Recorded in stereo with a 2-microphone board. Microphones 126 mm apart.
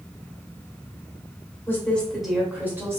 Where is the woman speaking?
20° left (ahead or behind), 0.9 m; by 3.0 s 25° right (ahead or behind), 1.1 m.